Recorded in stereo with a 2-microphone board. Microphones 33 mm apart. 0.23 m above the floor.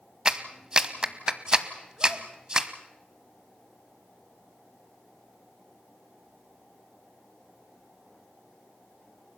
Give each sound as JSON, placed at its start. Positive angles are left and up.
{"t": 0.2, "sound": "a clap", "side_deg": -25, "distance_m": 1.2}